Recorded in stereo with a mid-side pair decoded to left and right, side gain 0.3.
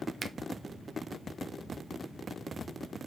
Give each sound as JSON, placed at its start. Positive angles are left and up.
{"t": 0.2, "sound": "a finger snap", "azimuth_deg": -60, "distance_m": 0.9}